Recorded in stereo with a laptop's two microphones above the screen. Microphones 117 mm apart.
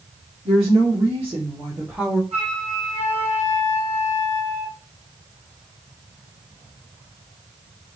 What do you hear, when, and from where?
0.5 s a woman speaking: 65° right (ahead or behind), 1.8 m; by 2.2 s 10° left (ahead or behind), 0.7 m
2.3 s a flute: 65° right (ahead or behind), 0.9 m